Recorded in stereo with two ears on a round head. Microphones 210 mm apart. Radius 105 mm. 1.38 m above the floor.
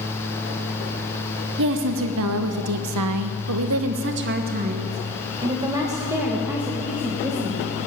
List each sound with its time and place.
1.6 s a woman speaking: 55° right (ahead or behind), 1.4 m; by 7.8 s centre (ahead or behind), 2.5 m